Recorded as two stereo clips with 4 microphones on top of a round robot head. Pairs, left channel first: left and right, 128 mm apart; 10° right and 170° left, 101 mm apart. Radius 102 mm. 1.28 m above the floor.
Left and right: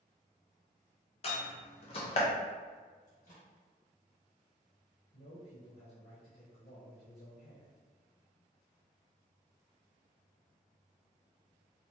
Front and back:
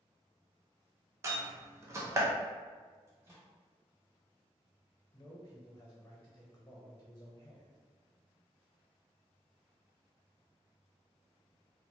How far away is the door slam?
About 0.5 m.